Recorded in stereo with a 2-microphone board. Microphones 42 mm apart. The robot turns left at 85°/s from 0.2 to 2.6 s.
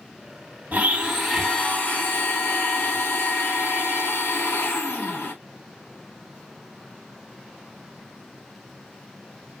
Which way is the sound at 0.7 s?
130° right.